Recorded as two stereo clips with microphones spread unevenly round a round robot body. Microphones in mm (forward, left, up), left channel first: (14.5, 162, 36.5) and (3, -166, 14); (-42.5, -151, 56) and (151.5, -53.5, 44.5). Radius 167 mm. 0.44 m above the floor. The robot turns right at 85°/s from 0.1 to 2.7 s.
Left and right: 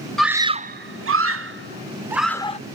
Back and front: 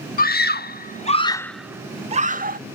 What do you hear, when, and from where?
0.2 s a scream: straight behind; by 2.6 s 25° left